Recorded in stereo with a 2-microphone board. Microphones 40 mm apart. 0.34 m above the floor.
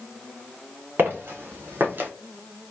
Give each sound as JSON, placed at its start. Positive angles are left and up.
{"t": 1.0, "sound": "footsteps", "side_deg": -60, "distance_m": 1.6}